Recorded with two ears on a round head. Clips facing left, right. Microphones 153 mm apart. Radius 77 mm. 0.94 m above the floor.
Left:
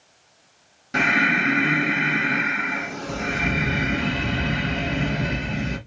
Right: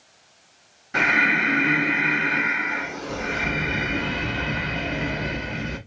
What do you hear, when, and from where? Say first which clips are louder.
0.9 s breathing: left 2 dB; 45° left (ahead or behind), 1.5 m